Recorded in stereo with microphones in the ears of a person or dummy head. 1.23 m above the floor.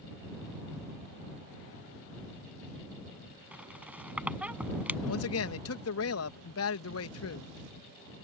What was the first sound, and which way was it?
A squeak, 10° right (ahead or behind).